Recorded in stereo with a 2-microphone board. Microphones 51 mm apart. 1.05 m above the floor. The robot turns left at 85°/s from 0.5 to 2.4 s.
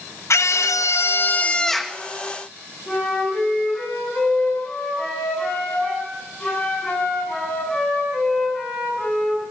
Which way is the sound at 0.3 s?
110° left.